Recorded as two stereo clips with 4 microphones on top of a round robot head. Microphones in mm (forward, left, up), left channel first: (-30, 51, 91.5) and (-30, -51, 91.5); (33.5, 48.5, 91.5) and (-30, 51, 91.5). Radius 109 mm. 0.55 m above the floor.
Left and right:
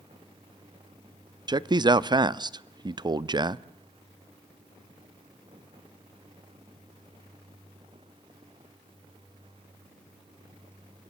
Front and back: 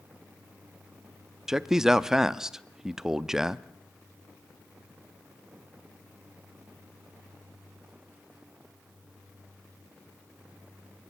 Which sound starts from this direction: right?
A man speaking, at 1.5 s.